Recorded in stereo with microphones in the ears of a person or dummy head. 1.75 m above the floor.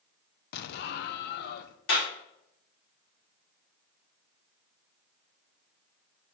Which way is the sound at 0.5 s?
65° left (ahead or behind).